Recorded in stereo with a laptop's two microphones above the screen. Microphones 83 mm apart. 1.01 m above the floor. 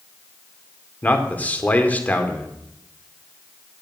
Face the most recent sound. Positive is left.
turn(degrees=20)  # may be behind; listen again after turning